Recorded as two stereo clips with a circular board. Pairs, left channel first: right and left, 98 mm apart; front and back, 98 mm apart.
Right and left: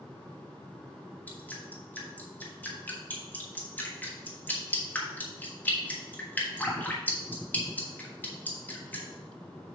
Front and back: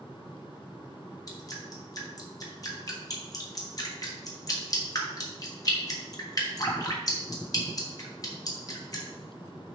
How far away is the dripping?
About 1.4 m.